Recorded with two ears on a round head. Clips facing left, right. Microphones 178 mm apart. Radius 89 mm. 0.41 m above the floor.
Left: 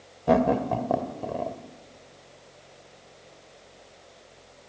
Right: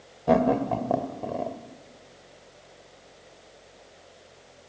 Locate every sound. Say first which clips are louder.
0.3 s laughter: even; centre (ahead or behind), 1.7 m